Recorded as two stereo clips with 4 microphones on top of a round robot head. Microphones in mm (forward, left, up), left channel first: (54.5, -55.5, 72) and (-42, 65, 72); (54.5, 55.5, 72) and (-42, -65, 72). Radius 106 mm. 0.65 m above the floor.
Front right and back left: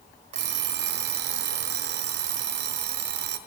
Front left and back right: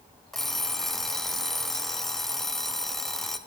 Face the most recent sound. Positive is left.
turn(degrees=140)